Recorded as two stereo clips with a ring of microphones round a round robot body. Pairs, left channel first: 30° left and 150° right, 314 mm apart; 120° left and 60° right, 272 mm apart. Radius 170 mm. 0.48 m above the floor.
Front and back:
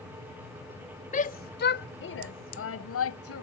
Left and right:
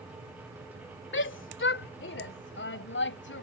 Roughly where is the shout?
Left.